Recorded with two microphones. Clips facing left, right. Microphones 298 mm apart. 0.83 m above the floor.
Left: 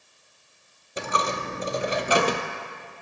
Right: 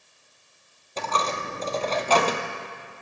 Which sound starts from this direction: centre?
A dropped coin, at 1.0 s.